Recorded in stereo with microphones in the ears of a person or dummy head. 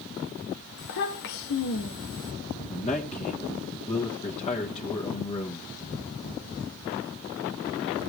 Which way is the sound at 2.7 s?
35° left (ahead or behind).